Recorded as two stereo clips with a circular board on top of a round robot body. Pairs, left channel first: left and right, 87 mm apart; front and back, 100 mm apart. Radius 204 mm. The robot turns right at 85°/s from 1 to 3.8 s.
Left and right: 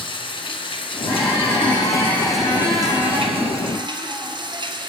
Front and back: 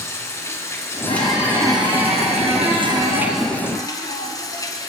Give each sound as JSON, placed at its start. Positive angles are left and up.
{"t": 0.0, "sound": "running water", "azimuth_deg": 65, "distance_m": 3.0}
{"t": 1.1, "sound": "a squeak", "azimuth_deg": 35, "distance_m": 9.5}